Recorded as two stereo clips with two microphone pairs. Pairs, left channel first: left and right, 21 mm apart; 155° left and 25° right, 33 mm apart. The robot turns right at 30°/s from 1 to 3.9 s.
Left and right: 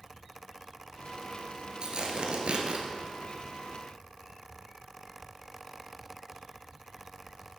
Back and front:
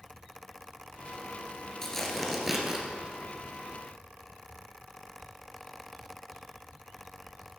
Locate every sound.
1.8 s tearing paper: 130° right, 1.6 m; by 2.8 s 100° right, 1.6 m